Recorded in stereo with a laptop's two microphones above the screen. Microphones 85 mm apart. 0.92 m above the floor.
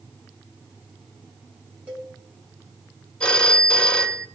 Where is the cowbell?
20° right (ahead or behind), 2.5 m.